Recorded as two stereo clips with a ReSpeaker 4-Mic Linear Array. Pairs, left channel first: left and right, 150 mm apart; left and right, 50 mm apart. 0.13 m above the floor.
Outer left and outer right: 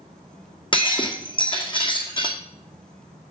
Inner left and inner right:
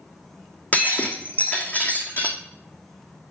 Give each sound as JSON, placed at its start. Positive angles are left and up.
{"t": 0.7, "sound": "breaking glass", "side_deg": 35, "distance_m": 1.4}